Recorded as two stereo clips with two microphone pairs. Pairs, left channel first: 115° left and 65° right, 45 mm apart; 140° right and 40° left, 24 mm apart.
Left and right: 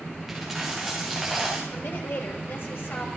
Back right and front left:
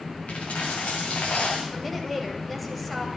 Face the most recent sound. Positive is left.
turn(degrees=135)